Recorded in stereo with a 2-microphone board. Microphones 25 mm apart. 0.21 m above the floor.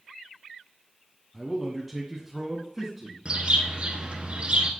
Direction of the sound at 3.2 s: 45° right (ahead or behind).